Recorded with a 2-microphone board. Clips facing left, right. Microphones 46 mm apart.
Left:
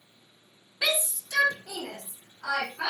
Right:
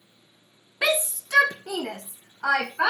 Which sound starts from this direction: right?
A shout, at 0.8 s.